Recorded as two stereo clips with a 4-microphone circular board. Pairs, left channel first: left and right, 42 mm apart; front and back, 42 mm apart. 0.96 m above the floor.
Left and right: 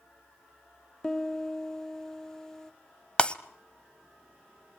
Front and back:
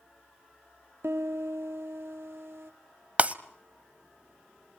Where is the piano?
165° left, 1.1 m.